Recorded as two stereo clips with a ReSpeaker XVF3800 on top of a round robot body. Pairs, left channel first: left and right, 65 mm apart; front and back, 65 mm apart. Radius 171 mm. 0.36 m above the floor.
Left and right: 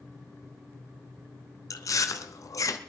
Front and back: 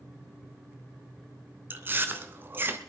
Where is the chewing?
120° left, 1.1 m.